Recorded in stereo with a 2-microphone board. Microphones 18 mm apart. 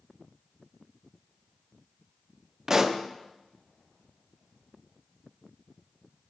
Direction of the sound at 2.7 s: 20° right (ahead or behind).